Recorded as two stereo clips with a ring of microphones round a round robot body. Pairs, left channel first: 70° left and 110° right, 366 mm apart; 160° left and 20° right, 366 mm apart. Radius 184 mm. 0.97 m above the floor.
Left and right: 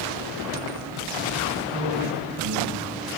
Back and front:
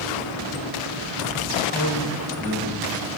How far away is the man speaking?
About 8 m.